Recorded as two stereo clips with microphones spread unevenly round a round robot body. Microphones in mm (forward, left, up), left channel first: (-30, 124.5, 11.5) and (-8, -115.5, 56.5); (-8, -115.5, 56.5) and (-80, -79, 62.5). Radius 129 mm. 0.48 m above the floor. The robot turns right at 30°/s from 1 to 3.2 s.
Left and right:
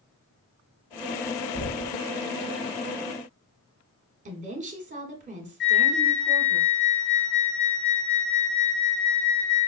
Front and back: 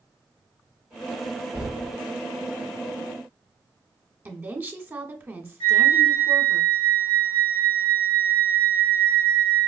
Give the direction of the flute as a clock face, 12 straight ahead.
7 o'clock.